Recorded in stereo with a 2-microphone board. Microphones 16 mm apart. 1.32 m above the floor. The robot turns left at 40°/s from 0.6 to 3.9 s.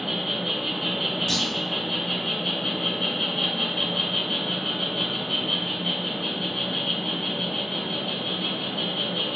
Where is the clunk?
20° left (ahead or behind), 0.6 m; by 1.5 s 25° left (ahead or behind), 0.6 m.